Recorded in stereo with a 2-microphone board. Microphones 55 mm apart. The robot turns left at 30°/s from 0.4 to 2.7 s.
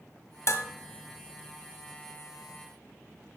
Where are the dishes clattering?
55° left (ahead or behind), 1.4 m; by 0.6 s 50° left (ahead or behind), 1.4 m.